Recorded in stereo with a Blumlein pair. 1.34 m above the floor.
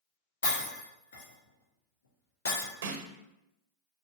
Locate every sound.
0.4 s breaking glass: 65° left, 1.5 m
2.8 s a snare drum: 60° right, 0.6 m